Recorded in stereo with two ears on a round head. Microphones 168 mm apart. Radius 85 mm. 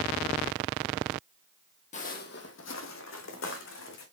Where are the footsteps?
35° left (ahead or behind), 1.1 m; by 4.0 s 75° left (ahead or behind), 2.5 m.